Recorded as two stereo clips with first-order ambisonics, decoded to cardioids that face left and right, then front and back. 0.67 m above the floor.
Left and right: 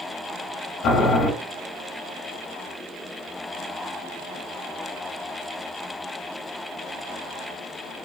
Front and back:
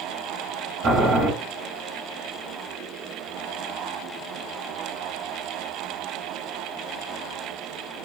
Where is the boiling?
135° left, 1.1 m.